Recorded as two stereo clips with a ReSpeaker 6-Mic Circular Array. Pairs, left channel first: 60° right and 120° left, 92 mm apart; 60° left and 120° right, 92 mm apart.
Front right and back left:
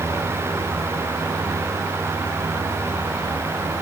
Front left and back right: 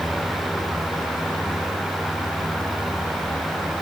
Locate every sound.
Only background noise.